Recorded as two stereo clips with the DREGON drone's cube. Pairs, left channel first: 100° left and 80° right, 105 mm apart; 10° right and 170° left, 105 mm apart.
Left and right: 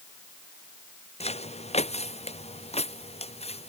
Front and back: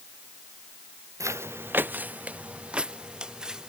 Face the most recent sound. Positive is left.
turn(degrees=85)